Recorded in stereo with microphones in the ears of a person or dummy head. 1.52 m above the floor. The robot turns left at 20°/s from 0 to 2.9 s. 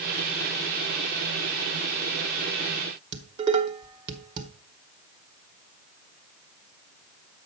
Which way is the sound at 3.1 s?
25° right (ahead or behind).